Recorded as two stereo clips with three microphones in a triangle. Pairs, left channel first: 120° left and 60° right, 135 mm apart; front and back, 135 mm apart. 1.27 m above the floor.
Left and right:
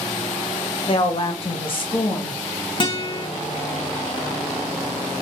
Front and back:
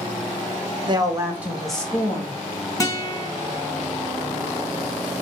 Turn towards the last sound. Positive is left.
turn(degrees=65)